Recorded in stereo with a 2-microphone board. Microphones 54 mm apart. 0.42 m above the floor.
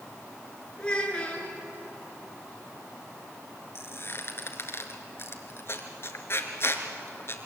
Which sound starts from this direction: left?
A squeak, at 3.8 s.